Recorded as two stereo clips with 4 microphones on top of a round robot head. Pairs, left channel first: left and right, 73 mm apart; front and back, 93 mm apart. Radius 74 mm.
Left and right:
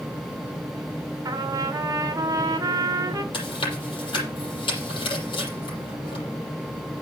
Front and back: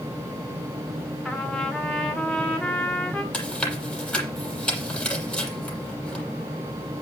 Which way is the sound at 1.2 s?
80° right.